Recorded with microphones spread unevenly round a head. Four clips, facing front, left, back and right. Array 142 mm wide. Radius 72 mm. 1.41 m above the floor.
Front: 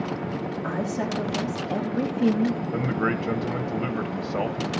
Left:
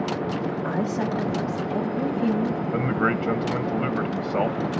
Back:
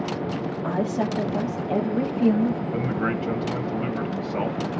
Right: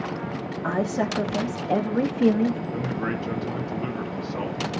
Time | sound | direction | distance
0.6 | a woman speaking | 125° right | 2.5 m
2.7 | a man speaking | 60° left | 1.2 m